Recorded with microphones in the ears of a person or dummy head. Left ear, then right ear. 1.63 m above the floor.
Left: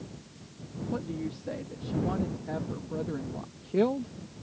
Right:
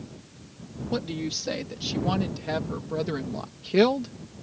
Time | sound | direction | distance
0.9 | a woman speaking | 80° right | ?